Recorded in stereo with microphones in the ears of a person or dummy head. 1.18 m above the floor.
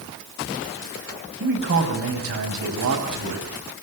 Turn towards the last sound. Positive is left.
turn(degrees=-80)